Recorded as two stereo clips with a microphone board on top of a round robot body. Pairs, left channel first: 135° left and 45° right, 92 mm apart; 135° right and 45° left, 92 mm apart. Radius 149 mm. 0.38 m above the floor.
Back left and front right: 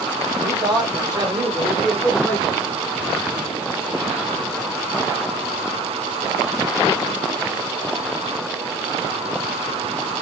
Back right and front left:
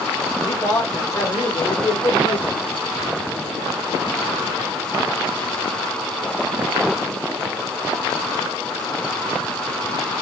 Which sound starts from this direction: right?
A man speaking, at 0.4 s.